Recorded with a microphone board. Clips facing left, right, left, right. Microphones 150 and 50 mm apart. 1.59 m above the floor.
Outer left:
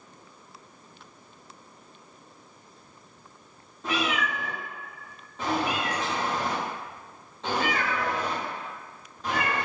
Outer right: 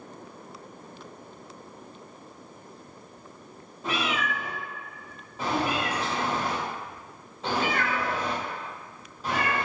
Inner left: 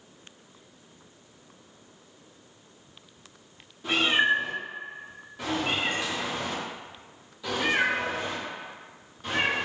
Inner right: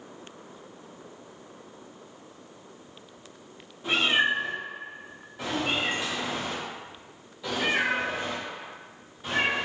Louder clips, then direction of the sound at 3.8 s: Outer left 1 dB, inner left 1 dB; 5° right (ahead or behind).